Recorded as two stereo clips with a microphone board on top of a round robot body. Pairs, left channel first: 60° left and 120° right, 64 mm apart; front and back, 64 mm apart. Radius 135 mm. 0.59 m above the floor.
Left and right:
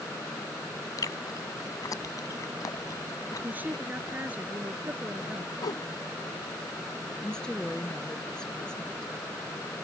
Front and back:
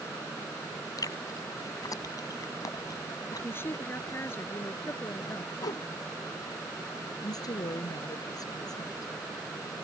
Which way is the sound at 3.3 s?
55° right.